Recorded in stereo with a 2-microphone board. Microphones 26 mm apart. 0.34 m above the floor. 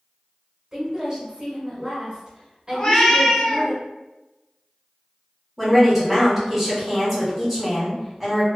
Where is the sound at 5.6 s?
5° left (ahead or behind), 1.3 m.